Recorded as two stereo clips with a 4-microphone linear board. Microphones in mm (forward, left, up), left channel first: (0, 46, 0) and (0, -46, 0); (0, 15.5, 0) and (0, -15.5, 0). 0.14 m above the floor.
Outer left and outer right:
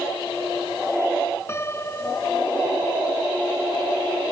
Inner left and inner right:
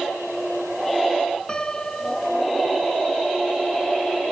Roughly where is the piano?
Left.